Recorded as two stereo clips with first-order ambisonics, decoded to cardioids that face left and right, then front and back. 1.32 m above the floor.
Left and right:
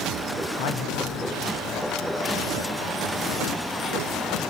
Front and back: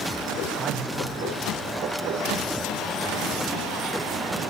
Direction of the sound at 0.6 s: 105° left.